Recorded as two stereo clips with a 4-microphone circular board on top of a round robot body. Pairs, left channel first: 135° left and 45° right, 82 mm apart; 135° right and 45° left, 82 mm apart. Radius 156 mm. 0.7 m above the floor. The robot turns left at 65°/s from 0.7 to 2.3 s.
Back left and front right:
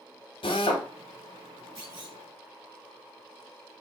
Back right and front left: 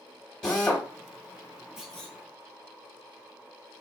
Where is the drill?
145° left, 1.3 m; by 0.9 s 130° left, 1.3 m.